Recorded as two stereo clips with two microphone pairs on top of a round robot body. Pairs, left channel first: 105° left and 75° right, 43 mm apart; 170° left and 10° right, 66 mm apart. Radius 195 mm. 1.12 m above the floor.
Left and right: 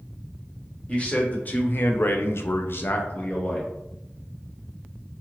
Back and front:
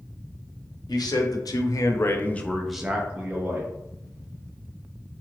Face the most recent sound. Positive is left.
turn(degrees=50)